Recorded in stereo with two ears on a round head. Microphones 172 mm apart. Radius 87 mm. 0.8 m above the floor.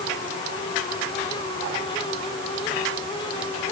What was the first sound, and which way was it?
Only background noise.